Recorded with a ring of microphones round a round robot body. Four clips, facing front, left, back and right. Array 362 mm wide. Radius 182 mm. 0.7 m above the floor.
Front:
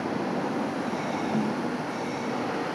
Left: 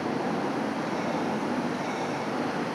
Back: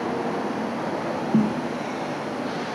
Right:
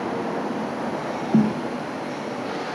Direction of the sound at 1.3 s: 120° right.